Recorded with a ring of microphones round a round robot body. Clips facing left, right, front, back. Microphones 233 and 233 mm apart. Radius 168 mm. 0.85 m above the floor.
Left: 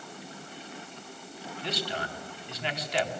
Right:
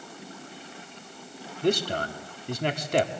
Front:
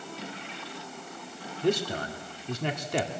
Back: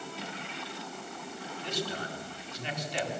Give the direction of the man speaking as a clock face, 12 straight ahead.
2 o'clock.